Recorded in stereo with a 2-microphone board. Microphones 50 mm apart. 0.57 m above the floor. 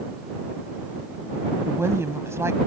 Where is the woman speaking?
65° right (ahead or behind).